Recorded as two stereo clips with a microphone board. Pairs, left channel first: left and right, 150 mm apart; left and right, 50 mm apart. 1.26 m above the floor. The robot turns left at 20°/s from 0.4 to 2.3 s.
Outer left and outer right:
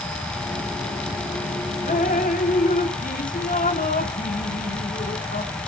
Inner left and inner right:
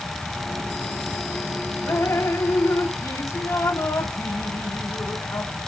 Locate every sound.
1.9 s dripping: 65° left (ahead or behind), 1.2 m; by 5.5 s 70° left (ahead or behind), 1.2 m